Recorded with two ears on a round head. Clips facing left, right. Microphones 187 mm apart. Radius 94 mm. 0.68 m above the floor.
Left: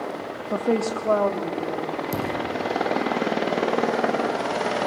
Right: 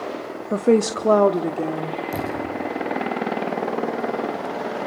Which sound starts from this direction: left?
A thud, at 2.1 s.